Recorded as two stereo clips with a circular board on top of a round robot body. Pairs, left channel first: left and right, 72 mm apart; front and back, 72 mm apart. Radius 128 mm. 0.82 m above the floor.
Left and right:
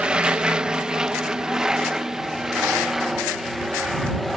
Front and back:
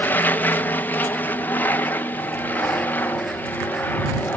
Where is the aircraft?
25° right; by 4.4 s straight ahead.